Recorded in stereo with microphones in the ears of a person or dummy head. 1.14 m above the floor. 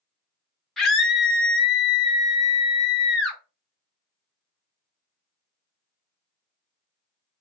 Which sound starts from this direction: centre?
A scream, at 0.8 s.